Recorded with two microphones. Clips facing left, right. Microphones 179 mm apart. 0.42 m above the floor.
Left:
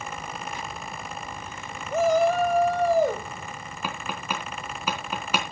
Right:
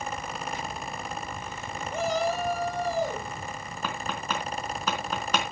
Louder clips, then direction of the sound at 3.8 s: Even; 10° left (ahead or behind).